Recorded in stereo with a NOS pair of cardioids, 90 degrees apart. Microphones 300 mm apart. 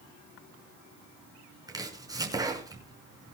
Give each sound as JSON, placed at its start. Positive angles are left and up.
{"t": 1.7, "sound": "chopping", "azimuth_deg": -10, "distance_m": 5.5}